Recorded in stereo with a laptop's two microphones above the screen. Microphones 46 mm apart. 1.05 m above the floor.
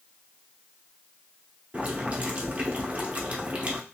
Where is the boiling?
30° right (ahead or behind), 0.7 m.